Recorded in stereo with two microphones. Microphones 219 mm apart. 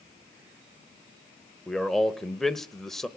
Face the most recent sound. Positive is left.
turn(degrees=0)  # may be behind; listen again after turning